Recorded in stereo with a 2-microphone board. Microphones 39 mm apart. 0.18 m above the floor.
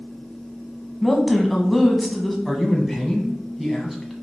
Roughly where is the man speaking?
Centre.